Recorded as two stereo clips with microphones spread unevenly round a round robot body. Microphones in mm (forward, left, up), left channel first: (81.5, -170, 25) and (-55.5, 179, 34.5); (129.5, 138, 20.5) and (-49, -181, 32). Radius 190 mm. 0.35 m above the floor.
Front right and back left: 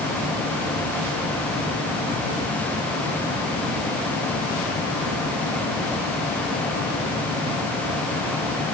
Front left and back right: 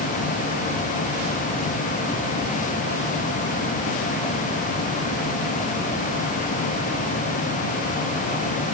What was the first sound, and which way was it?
Only background noise.